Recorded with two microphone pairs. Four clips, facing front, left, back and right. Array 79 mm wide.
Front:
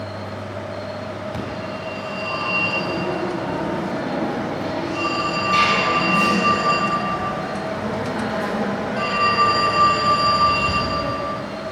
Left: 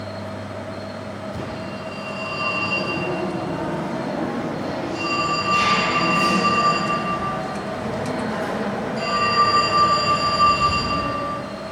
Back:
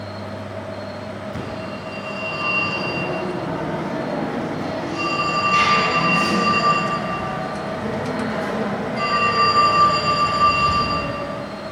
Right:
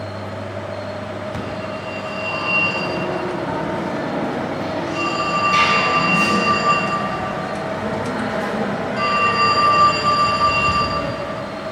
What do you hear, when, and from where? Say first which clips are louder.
1.3 s a phone ringing: right 3 dB, front 1 dB; 60° right, 5 m